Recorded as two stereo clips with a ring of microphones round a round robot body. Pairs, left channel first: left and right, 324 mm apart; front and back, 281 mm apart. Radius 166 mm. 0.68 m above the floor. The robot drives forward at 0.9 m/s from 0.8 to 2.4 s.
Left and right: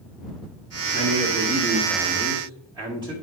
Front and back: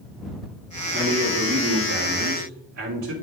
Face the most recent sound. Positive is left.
turn(degrees=-165)